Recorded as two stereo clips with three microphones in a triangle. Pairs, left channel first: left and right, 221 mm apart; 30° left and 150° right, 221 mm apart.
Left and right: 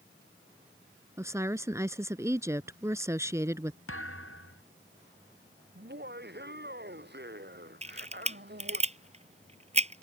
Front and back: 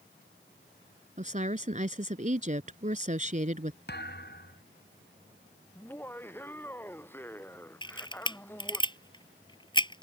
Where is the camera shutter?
35° right.